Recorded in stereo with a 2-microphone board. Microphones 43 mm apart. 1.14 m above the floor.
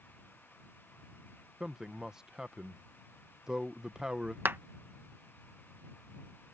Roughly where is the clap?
Right.